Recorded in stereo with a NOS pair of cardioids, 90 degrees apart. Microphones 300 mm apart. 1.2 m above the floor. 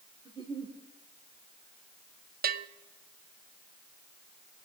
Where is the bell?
35° right, 0.5 m.